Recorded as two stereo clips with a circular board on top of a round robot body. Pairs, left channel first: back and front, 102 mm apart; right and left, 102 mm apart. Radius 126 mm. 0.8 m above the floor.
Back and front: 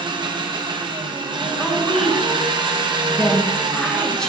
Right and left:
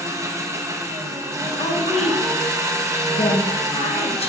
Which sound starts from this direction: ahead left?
An engine running, at 0.0 s.